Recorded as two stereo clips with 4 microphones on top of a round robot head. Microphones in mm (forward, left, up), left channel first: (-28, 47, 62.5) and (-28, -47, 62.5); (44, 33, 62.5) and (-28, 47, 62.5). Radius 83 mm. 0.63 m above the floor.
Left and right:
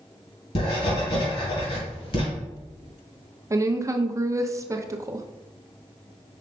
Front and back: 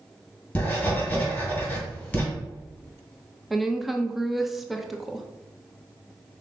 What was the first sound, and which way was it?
Writing, 60° left.